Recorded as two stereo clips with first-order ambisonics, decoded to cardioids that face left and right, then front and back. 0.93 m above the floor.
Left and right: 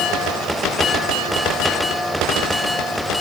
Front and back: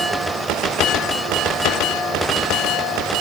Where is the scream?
No scream in this recording.